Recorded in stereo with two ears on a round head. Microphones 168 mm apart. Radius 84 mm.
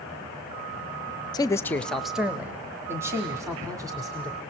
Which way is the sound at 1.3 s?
20° left (ahead or behind).